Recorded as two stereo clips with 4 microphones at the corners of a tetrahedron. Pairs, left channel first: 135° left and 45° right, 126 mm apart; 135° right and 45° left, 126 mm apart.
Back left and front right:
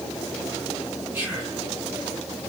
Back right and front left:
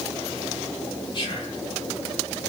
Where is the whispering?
110° right, 1.4 m.